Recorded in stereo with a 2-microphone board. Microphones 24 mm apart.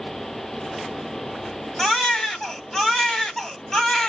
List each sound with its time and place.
1.8 s a baby crying: 20° left (ahead or behind), 2.0 m